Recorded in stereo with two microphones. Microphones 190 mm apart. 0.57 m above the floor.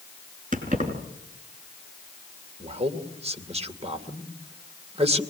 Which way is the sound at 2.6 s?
35° right (ahead or behind).